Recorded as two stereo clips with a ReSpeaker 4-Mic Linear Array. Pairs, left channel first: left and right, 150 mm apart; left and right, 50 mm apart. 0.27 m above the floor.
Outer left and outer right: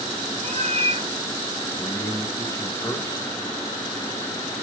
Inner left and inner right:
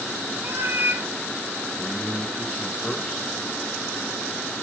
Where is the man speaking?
20° left (ahead or behind), 1.0 m.